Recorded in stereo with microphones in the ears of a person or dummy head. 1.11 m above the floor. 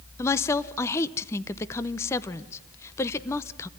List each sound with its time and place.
0.2 s a woman speaking: 15° left (ahead or behind), 0.7 m